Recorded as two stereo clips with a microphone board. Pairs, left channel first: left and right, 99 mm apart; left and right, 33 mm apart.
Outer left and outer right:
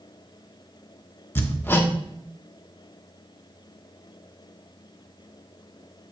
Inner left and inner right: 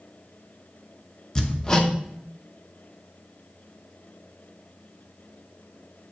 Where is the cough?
I don't hear a cough.